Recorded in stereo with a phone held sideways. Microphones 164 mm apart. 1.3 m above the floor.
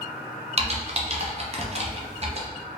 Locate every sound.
0.6 s typing on a keyboard: 40° right (ahead or behind), 0.7 m